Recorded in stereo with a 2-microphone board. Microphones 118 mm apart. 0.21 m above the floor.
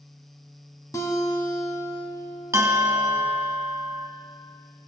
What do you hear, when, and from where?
0.9 s a guitar: 25° left (ahead or behind), 1.1 m
2.5 s a bell: 25° right (ahead or behind), 0.6 m